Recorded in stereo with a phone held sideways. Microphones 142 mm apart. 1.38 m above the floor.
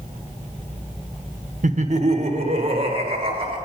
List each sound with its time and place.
1.6 s laughter: 60° right (ahead or behind), 0.7 m; by 3.6 s 40° right (ahead or behind), 3 m